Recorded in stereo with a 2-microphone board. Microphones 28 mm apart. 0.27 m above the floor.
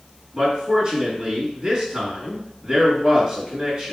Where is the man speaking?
40° right (ahead or behind), 3 m.